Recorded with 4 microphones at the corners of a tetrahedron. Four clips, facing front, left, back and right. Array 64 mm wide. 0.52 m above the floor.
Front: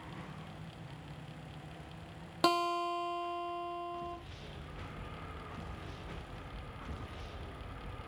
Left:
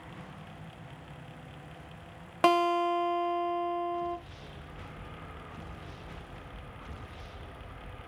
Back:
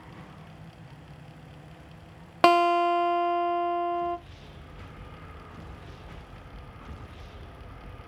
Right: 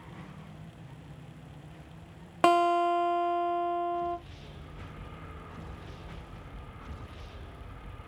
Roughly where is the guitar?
Behind.